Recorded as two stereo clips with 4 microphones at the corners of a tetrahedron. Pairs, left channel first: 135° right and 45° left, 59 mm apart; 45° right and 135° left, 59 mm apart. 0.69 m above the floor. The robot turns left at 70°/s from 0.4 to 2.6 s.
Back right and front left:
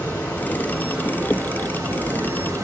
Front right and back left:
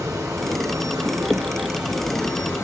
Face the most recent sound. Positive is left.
turn(degrees=5)